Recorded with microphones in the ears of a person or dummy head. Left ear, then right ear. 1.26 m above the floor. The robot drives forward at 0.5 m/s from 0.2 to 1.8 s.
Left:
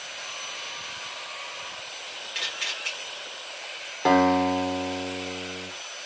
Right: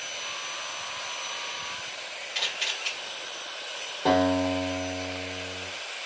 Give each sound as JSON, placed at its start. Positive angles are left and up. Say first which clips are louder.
{"t": 2.4, "sound": "a camera shutter", "louder": "right 1 dB", "side_deg": 10, "distance_m": 1.1}
{"t": 4.0, "sound": "a guitar", "louder": "left 3 dB", "side_deg": 65, "distance_m": 1.1}